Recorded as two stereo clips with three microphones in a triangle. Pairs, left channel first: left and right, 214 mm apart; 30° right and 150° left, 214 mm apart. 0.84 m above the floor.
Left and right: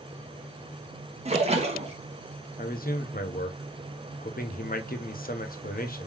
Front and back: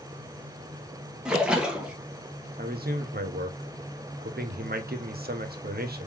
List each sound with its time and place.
1.2 s a splash: 125° right, 0.9 m
2.6 s a man speaking: 125° left, 0.7 m